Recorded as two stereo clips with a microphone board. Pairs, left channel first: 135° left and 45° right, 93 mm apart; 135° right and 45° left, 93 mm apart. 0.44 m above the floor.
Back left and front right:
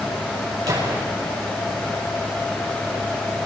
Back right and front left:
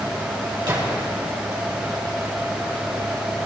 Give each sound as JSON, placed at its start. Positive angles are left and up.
{"t": 0.7, "sound": "a gunshot", "azimuth_deg": 5, "distance_m": 5.0}